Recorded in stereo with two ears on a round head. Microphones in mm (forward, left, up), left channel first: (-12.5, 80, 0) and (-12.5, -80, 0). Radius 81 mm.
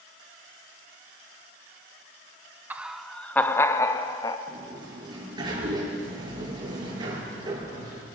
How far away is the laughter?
About 0.7 m.